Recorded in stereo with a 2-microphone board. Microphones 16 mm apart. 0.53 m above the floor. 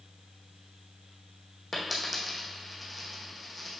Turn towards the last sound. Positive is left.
turn(degrees=-10)  # may be behind; listen again after turning